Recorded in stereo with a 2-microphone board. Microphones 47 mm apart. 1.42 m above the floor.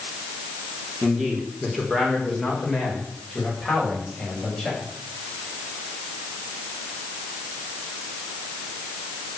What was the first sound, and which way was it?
A man speaking, 10° right (ahead or behind).